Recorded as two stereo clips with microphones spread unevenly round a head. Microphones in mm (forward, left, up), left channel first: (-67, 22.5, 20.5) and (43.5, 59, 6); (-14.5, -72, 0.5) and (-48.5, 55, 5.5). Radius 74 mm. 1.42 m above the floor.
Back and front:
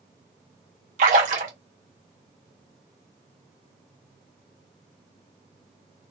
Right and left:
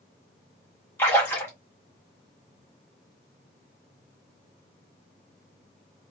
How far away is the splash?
About 1.1 m.